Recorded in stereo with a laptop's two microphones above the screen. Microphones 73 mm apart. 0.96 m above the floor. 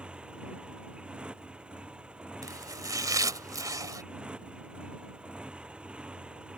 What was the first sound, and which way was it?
A motorcycle, 15° right (ahead or behind).